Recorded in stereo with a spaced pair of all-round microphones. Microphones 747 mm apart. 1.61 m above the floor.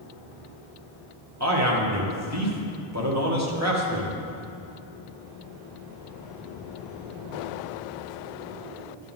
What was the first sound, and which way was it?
A man speaking, 20° right (ahead or behind).